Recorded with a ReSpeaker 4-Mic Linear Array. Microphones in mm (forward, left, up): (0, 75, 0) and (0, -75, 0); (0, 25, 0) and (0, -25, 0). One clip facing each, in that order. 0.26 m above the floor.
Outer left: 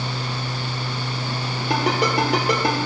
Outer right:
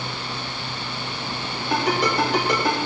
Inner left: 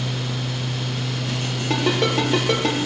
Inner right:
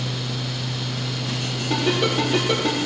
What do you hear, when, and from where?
1.7 s a ringtone: 75° left (ahead or behind), 4.5 m